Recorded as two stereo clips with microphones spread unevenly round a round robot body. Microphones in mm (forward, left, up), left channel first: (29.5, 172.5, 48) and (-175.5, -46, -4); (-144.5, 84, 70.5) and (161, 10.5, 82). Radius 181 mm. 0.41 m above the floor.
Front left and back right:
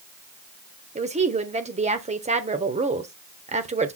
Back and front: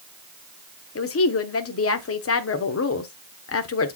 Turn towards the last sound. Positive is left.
turn(degrees=180)